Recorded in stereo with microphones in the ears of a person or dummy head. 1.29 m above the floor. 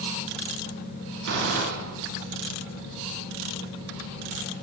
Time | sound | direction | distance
1.2 | a gunshot | 60° right (ahead or behind) | 3 m